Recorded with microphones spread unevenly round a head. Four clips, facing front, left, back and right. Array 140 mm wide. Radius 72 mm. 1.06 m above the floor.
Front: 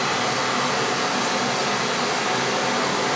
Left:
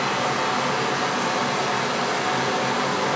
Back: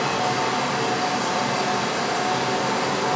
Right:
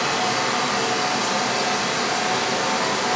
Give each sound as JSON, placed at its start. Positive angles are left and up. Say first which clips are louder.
{"t": 0.0, "sound": "running water", "louder": "right 1 dB, back 1 dB", "azimuth_deg": 45, "distance_m": 1.3}